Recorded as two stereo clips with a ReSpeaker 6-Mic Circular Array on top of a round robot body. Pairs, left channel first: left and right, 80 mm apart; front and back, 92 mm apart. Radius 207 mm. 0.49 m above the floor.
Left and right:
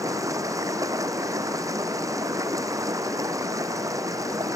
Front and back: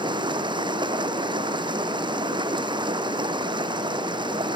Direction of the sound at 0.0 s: 140° right.